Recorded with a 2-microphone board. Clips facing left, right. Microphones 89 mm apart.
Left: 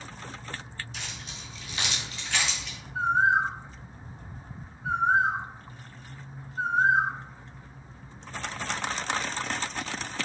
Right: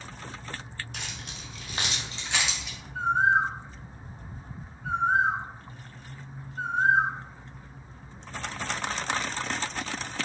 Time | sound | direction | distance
0.9 | keys jangling | 60° right (ahead or behind) | 0.8 m
3.0 | a bird | 15° left (ahead or behind) | 1.6 m